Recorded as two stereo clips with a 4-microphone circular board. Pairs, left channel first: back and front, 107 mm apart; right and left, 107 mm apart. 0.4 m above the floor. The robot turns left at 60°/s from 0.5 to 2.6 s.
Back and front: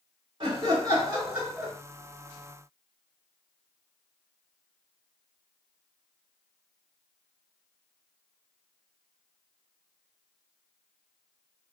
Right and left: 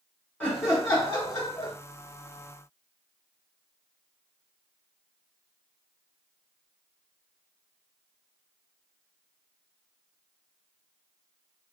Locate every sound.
0.4 s laughter: 20° right, 2 m; by 1.7 s 95° right, 2 m